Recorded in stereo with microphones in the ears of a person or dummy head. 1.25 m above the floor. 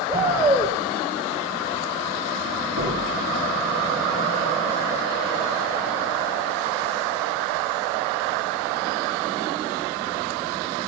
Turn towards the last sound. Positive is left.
turn(degrees=-50)  # may be behind; listen again after turning